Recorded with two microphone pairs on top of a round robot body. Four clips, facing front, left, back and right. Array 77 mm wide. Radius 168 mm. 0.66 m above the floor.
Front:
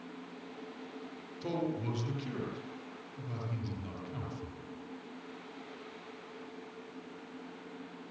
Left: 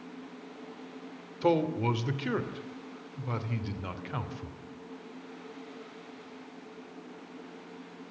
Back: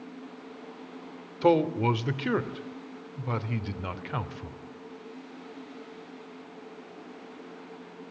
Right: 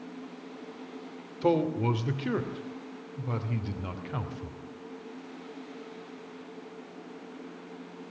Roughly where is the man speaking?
Behind.